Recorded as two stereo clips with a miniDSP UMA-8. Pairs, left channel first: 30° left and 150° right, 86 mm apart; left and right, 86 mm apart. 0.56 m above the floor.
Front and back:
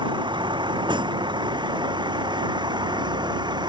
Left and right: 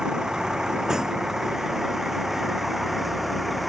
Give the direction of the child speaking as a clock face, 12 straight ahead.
I don't hear a child speaking.